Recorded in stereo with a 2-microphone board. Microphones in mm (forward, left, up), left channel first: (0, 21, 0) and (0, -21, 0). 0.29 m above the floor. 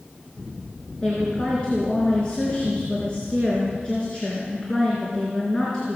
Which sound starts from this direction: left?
A woman speaking, at 1.0 s.